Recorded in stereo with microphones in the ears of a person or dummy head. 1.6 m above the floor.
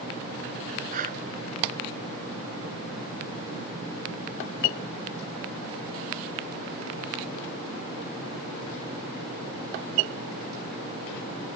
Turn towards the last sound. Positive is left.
turn(degrees=-45)  # may be behind; listen again after turning